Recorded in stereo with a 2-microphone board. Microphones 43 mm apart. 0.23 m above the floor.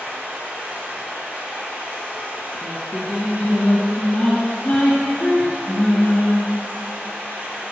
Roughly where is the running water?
Right.